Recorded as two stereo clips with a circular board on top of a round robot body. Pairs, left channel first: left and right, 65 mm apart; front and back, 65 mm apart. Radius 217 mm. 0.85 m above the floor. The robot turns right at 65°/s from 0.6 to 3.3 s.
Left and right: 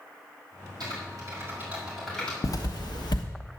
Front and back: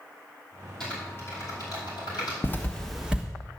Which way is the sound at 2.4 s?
60° left.